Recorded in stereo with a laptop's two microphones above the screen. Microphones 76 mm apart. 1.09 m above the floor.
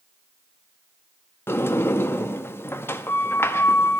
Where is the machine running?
I don't hear a machine running.